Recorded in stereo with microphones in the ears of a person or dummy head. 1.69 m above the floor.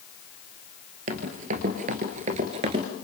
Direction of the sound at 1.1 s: 50° right (ahead or behind).